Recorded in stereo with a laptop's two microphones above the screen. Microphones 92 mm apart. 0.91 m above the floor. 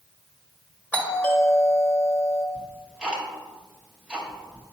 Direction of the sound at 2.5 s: 10° right (ahead or behind).